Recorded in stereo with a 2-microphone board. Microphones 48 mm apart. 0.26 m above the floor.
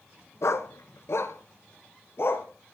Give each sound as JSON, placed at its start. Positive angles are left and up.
{"t": 0.4, "sound": "a dog barking", "side_deg": 75, "distance_m": 1.0}